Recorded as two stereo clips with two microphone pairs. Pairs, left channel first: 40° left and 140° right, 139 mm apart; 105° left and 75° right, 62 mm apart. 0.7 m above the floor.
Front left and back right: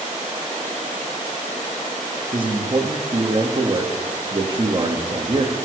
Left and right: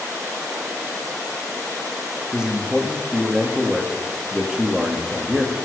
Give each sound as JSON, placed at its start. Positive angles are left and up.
{"t": 2.3, "sound": "a man speaking", "azimuth_deg": -145, "distance_m": 1.1}